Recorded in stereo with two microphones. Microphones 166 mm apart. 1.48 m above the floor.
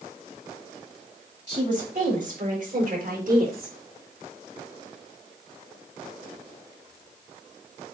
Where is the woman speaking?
45° right (ahead or behind), 3.5 m; by 3.8 s 65° right (ahead or behind), 4 m.